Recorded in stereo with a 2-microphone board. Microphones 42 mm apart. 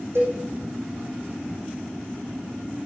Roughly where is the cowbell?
Right.